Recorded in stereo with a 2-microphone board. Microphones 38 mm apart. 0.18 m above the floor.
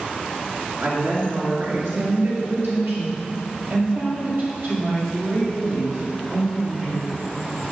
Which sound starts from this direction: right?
A woman speaking, at 0.8 s.